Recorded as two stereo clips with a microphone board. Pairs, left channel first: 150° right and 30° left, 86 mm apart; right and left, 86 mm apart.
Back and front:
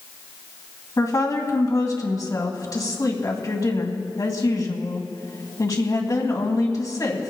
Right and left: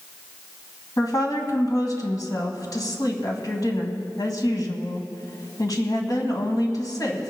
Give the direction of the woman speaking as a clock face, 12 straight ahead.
4 o'clock.